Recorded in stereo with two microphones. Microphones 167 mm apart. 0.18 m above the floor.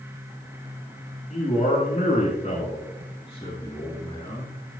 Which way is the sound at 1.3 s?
50° left (ahead or behind).